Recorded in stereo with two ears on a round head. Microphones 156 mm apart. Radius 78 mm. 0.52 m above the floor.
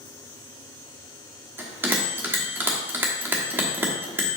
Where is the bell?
15° right (ahead or behind), 1.1 m.